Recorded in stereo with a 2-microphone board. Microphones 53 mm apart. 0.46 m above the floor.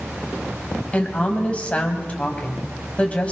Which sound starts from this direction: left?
A woman speaking, at 0.9 s.